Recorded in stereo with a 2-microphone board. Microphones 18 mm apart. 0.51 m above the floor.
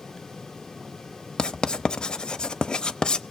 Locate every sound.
1.4 s writing: 65° left (ahead or behind), 0.7 m